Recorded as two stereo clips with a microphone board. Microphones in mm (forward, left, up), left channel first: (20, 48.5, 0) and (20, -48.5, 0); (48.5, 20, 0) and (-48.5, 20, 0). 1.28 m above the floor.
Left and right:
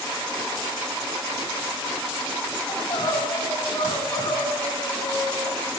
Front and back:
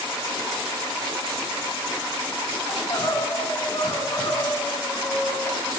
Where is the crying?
45° left, 9 m.